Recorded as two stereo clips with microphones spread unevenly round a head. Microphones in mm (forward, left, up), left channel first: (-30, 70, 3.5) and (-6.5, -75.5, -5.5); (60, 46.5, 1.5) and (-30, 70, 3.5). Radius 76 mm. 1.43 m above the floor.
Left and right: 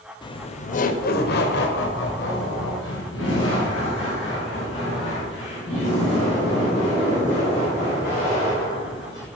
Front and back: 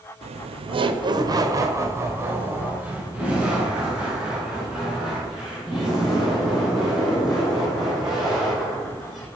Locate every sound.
0.2 s laughter: 165° left, 0.6 m; by 9.3 s 75° left, 5 m